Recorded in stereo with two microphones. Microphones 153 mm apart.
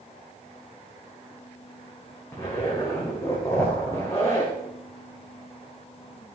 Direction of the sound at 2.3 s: 20° left (ahead or behind).